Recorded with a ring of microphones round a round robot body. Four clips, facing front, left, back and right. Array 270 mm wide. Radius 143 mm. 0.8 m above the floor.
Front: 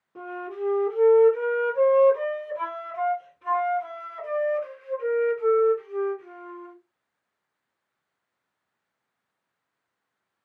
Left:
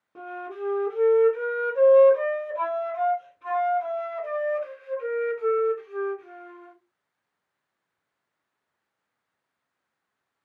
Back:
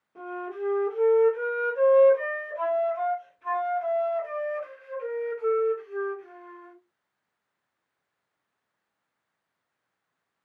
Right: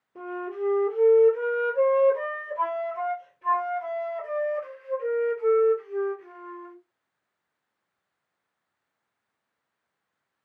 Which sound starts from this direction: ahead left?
A flute, at 0.1 s.